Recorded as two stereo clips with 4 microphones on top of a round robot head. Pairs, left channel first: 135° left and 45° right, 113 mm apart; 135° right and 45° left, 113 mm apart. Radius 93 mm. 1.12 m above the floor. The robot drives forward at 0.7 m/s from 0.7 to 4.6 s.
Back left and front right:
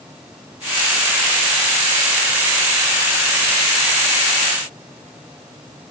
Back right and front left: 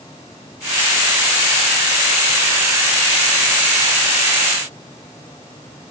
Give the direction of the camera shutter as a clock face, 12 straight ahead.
No camera shutter in this recording.